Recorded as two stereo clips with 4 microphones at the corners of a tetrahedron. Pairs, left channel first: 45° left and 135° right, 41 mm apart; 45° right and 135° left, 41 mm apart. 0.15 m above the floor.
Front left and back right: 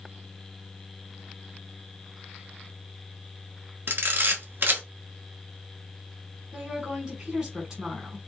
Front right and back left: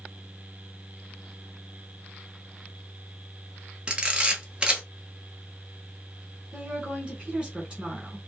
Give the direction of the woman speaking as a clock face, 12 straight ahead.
6 o'clock.